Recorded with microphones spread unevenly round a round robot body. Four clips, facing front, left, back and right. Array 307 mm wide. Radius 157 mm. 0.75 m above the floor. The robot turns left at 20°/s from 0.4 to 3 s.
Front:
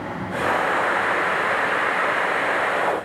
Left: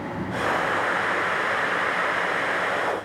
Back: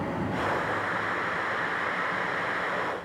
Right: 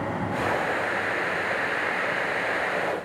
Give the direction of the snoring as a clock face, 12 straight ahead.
I don't hear snoring.